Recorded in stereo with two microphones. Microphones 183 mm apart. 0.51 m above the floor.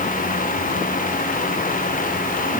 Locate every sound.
Only background noise.